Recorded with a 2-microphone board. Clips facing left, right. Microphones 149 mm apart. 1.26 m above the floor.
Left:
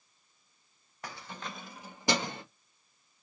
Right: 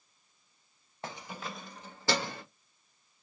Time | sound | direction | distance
1.0 | keys jangling | 25° right (ahead or behind) | 0.5 m